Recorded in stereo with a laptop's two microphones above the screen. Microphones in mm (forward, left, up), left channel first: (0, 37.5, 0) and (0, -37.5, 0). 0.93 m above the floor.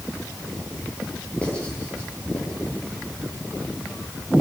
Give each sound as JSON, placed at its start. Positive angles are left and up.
{"t": 1.4, "sound": "writing", "side_deg": 15, "distance_m": 10.0}